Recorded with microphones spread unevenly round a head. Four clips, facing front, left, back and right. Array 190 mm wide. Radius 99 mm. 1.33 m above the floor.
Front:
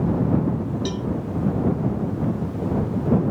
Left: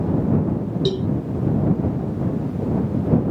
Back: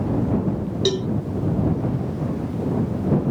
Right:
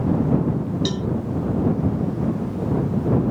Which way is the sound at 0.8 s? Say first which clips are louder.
Left 3 dB, back 5 dB; 145° left.